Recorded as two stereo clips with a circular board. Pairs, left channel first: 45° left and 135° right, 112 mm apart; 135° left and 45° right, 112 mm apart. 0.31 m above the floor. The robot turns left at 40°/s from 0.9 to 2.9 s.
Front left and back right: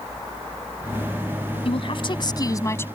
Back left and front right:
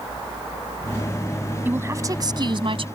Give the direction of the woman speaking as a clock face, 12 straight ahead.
11 o'clock.